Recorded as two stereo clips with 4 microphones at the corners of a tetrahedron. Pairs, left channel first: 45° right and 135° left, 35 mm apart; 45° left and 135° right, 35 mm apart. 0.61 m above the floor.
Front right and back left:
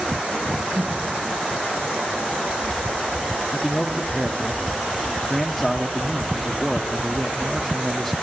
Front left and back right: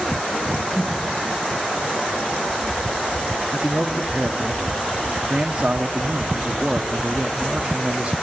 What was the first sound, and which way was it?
Breathing, 115° left.